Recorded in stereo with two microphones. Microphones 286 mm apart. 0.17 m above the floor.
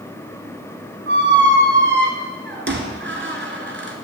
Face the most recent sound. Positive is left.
turn(degrees=-40)  # may be behind; listen again after turning